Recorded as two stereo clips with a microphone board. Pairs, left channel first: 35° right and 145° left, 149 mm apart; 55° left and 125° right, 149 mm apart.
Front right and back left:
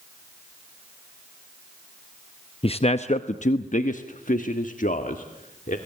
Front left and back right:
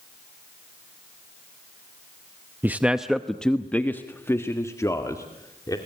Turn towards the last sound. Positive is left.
turn(degrees=-10)